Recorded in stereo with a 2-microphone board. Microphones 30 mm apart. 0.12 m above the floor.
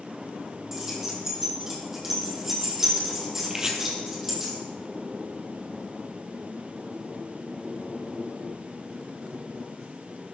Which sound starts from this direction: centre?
Keys jangling, at 0.7 s.